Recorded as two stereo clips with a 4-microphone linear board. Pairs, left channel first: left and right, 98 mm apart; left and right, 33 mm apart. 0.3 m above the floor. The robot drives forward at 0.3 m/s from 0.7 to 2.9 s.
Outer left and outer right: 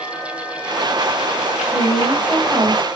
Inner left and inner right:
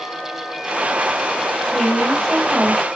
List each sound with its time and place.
1.6 s a woman speaking: 5° left (ahead or behind), 1.8 m